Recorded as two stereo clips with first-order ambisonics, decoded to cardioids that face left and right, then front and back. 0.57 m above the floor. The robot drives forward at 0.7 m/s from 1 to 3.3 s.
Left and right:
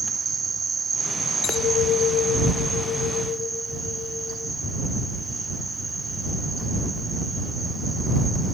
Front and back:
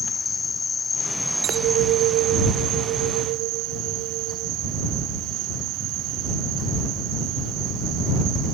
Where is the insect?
40° right; by 8.5 s 170° right.